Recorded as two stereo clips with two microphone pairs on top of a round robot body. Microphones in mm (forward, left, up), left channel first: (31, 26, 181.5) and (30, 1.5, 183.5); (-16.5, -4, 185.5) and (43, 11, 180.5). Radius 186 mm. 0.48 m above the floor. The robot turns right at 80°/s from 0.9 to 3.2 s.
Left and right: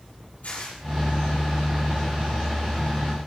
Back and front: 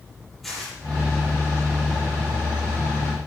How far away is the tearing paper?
About 9.5 m.